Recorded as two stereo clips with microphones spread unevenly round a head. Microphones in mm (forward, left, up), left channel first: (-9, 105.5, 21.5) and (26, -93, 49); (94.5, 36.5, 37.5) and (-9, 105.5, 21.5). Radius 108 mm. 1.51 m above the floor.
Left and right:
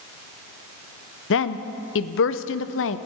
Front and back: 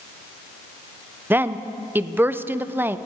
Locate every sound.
1.3 s a woman speaking: 70° left, 0.7 m